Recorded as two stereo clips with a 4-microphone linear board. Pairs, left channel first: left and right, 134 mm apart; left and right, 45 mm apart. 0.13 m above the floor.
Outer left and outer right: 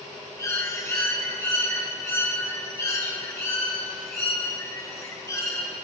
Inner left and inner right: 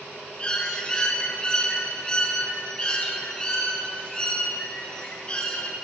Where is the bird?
25° left (ahead or behind), 2 m.